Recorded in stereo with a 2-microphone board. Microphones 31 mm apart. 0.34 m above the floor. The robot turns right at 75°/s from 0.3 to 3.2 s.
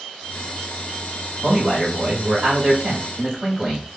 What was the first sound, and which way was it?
A man speaking, 165° right.